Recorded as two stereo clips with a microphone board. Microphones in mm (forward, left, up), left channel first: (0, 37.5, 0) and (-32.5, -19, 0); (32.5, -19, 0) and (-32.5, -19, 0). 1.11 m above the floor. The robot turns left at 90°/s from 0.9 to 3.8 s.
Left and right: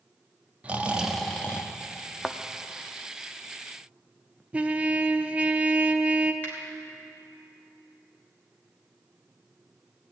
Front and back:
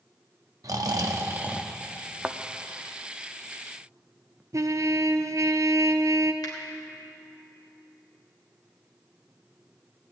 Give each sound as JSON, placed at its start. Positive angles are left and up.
{"t": 0.6, "sound": "snoring", "azimuth_deg": 170, "distance_m": 0.8}
{"t": 2.2, "sound": "a thud", "azimuth_deg": 140, "distance_m": 0.6}
{"t": 4.5, "sound": "a trumpet", "azimuth_deg": 175, "distance_m": 0.6}
{"t": 6.4, "sound": "a finger snap", "azimuth_deg": 0, "distance_m": 3.0}